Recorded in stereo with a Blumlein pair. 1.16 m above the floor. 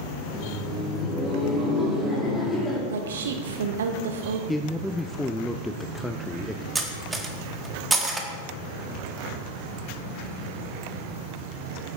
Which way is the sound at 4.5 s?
5° left.